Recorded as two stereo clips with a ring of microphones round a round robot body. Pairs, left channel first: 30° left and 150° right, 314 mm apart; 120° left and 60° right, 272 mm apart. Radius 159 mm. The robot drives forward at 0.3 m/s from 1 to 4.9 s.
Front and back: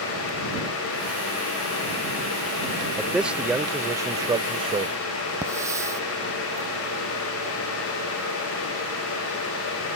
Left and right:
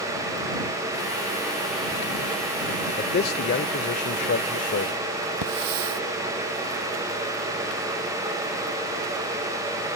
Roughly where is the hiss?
Right.